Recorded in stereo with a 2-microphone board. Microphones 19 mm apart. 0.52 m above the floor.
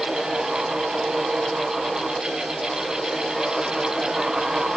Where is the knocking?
No knocking in this recording.